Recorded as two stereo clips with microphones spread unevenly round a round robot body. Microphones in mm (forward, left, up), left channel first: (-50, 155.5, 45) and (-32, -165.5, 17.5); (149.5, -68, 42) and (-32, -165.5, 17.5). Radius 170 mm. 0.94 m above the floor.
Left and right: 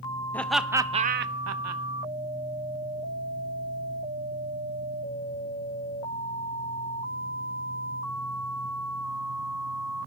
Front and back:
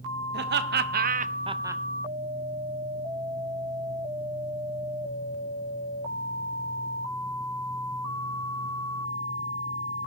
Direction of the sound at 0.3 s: Straight behind.